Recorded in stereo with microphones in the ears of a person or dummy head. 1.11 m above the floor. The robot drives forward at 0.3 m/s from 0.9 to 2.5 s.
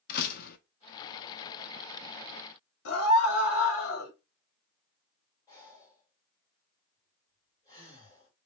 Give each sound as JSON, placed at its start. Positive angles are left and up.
{"t": 0.1, "sound": "a door slam", "side_deg": 55, "distance_m": 0.9}
{"t": 2.9, "sound": "a scream", "side_deg": 85, "distance_m": 2.5}
{"t": 5.5, "sound": "breathing", "side_deg": 20, "distance_m": 1.9}